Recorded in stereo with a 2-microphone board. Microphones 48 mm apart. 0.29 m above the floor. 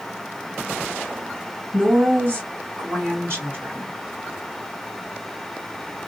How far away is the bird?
I don't hear a bird.